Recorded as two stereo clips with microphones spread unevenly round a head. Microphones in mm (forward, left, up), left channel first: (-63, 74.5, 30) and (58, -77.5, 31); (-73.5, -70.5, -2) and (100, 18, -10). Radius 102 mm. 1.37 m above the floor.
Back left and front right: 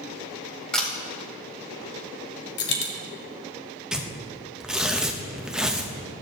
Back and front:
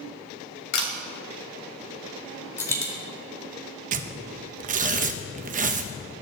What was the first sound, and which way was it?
A camera shutter, 145° right.